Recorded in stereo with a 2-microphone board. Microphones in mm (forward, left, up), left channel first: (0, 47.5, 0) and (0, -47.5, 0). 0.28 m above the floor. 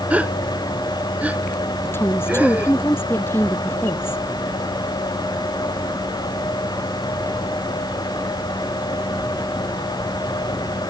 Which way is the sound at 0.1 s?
15° right (ahead or behind).